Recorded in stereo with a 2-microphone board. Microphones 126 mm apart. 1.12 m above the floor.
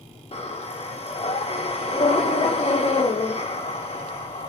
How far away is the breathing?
About 0.6 m.